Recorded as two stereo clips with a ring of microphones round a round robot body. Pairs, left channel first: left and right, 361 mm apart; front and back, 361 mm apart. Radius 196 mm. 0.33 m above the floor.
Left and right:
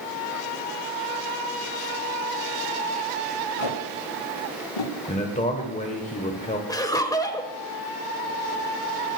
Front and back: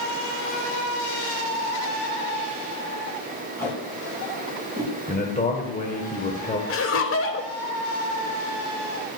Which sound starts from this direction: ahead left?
A man speaking, at 5.1 s.